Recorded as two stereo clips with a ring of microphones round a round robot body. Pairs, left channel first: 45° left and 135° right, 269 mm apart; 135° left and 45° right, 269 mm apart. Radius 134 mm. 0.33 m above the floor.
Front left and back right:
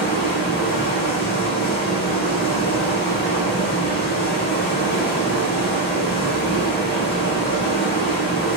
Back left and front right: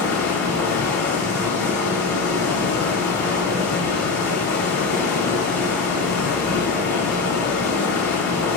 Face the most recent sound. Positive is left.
turn(degrees=90)